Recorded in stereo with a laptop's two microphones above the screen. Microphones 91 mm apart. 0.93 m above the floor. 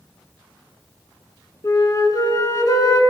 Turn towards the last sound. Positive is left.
turn(degrees=40)  # may be behind; listen again after turning